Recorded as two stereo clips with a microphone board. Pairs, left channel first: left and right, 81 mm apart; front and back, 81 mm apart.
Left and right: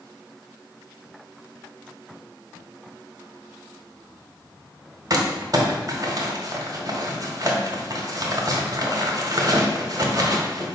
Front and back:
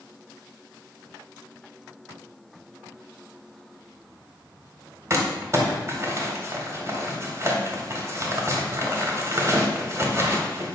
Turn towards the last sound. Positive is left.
turn(degrees=-130)